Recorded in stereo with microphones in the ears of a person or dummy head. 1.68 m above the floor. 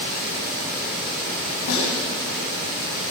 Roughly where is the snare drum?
Left.